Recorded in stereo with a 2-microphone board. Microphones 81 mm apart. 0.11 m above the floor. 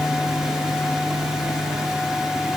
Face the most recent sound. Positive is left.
No sound to turn to.